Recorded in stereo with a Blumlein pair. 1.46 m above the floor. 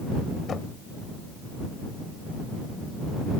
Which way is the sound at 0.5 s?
20° left.